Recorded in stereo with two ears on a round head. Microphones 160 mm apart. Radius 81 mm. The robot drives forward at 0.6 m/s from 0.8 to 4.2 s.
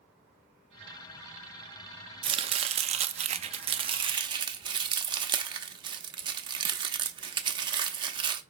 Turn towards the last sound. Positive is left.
turn(degrees=-25)  # may be behind; listen again after turning